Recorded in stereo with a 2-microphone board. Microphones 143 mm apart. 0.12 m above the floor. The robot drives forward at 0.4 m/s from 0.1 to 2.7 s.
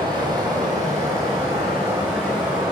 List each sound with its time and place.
0.0 s running water: 30° right (ahead or behind), 0.8 m; by 2.7 s 15° right (ahead or behind), 1.8 m